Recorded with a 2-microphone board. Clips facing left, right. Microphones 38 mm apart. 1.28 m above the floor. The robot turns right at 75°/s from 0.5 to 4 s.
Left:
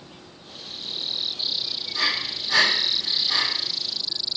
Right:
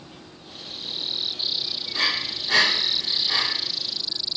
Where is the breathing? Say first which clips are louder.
Even; 40° right (ahead or behind), 0.8 m; by 3.4 s 15° right (ahead or behind), 0.8 m.